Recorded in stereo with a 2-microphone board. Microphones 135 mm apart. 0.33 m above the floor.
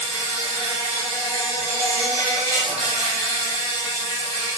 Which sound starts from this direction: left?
An insect, at 0.0 s.